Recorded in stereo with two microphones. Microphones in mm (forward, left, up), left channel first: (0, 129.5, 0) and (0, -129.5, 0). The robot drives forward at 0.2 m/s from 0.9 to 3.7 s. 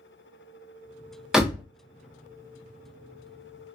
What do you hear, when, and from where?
1.3 s a door slam: centre (ahead or behind), 0.5 m; by 1.6 s 5° right (ahead or behind), 0.5 m